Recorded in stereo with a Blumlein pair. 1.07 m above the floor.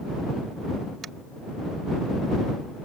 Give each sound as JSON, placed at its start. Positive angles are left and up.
{"t": 1.0, "sound": "tapping", "azimuth_deg": -25}